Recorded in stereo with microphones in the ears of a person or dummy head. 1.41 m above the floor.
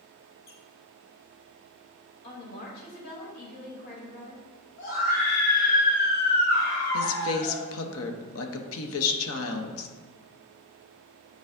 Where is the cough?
I don't hear a cough.